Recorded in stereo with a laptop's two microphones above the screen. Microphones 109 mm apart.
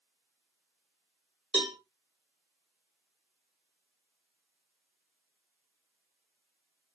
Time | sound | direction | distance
1.5 | a cowbell | 55° right (ahead or behind) | 1.6 m